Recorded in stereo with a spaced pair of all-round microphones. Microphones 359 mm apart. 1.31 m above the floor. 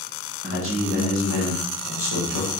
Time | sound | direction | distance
0.4 | a man speaking | 35° right (ahead or behind) | 1.1 m